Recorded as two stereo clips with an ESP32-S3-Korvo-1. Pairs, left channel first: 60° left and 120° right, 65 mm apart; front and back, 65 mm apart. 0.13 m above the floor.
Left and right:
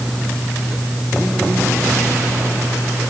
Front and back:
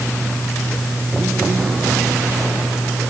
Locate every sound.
Only background noise.